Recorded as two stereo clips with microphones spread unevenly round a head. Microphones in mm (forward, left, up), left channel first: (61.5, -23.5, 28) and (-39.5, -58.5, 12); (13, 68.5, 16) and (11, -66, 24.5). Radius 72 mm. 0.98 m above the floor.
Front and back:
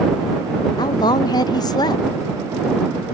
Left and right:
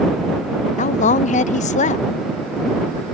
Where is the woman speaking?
80° left.